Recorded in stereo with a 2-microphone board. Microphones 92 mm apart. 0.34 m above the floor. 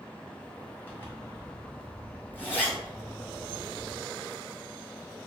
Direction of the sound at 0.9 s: 20° left (ahead or behind).